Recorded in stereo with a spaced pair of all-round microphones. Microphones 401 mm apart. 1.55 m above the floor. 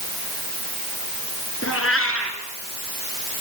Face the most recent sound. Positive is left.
turn(degrees=35)  # may be behind; listen again after turning